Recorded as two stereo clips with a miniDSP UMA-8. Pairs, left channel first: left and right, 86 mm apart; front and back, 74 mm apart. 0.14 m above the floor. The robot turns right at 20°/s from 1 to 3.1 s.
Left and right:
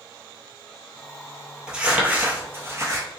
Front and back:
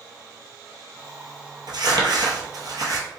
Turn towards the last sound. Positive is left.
turn(degrees=-140)